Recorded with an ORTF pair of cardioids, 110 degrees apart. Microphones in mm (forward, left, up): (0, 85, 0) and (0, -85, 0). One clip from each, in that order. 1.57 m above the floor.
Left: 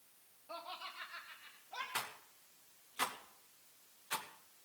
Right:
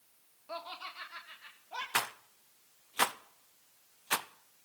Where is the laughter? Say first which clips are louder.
Right 4 dB; 30° right, 1.2 m; by 1.8 s 40° right, 2 m.